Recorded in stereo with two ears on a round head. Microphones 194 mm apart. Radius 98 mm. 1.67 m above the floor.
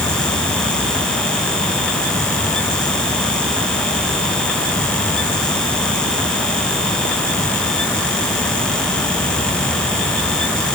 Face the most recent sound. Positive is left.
No sound to turn to.